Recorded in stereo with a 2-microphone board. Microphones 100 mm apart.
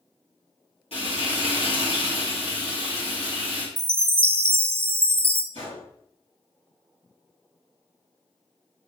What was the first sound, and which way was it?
Frying, 65° left (ahead or behind).